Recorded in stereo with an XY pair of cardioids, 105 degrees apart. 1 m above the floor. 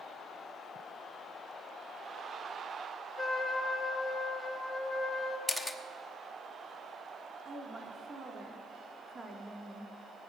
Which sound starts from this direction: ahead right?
A woman speaking, at 7.5 s.